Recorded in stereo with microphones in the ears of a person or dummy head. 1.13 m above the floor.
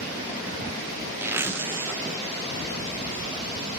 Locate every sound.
1.2 s a zipper: 15° right (ahead or behind), 1.0 m